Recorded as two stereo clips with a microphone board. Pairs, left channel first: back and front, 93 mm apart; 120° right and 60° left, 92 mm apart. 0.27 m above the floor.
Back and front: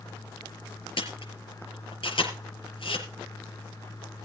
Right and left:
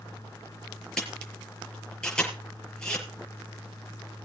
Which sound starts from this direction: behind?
A camera shutter, at 1.0 s.